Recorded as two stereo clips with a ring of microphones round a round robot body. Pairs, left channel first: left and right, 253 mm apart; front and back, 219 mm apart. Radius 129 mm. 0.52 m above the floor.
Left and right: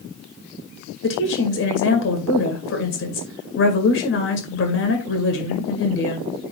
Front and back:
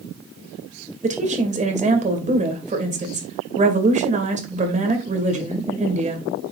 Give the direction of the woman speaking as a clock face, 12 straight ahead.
8 o'clock.